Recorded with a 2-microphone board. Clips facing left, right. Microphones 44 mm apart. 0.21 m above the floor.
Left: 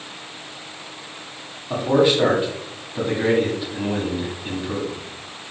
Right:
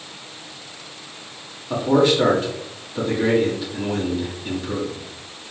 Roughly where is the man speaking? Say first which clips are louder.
Even; centre.